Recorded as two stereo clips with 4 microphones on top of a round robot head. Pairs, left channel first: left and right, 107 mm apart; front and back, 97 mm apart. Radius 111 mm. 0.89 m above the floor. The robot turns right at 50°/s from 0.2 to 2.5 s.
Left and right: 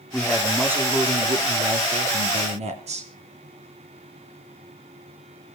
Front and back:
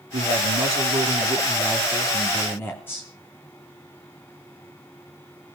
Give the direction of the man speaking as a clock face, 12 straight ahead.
6 o'clock.